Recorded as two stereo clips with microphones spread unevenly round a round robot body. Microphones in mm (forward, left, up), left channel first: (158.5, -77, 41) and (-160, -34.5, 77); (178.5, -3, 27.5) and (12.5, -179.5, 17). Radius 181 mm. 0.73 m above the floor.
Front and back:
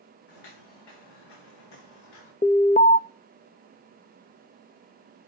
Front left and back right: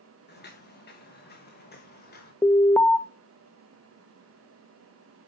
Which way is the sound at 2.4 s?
35° right.